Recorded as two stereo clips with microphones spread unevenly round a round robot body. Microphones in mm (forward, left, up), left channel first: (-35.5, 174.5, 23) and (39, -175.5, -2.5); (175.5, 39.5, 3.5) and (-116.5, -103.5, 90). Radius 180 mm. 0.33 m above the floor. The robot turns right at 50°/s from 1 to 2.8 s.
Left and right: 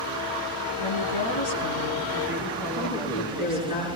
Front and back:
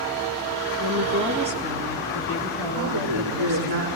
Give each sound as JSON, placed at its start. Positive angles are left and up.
{"t": 0.8, "sound": "a woman speaking", "azimuth_deg": 105, "distance_m": 3.0}
{"t": 2.7, "sound": "a woman speaking", "azimuth_deg": 165, "distance_m": 6.5}